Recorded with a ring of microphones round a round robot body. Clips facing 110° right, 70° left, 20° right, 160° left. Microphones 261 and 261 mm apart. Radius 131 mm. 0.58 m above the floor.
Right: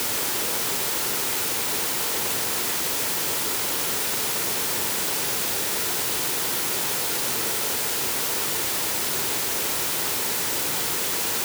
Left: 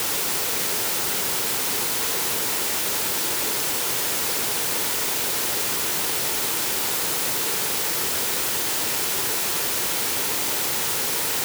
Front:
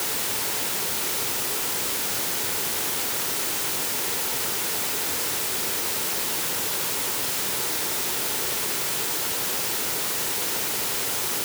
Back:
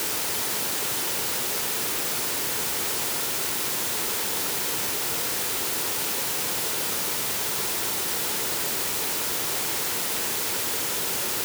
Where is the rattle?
No rattle in this recording.